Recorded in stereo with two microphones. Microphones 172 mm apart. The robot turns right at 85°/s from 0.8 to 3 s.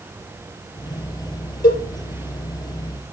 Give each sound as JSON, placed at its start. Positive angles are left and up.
{"t": 1.6, "sound": "a cowbell", "side_deg": 60, "distance_m": 4.5}